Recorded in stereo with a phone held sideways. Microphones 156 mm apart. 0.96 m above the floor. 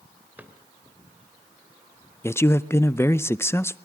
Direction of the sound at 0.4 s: 10° right (ahead or behind).